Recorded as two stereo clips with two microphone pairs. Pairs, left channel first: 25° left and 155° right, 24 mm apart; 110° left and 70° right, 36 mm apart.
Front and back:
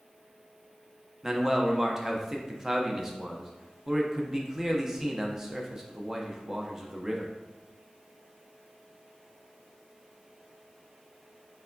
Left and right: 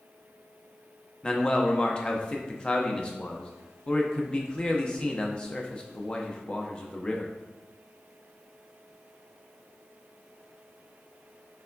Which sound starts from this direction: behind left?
A man speaking, at 1.2 s.